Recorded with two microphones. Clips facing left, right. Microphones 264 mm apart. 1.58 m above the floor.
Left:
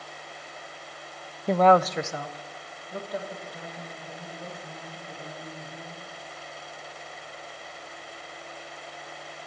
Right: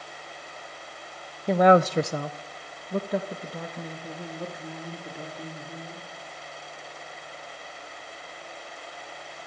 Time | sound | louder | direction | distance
1.5 | a woman speaking | right 2 dB | centre (ahead or behind) | 0.6 m